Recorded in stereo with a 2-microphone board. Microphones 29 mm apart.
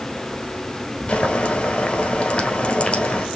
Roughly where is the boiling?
Left.